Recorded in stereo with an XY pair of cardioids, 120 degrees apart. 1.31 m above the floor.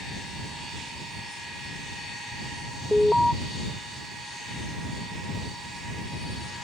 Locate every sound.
2.9 s an alarm: 5° left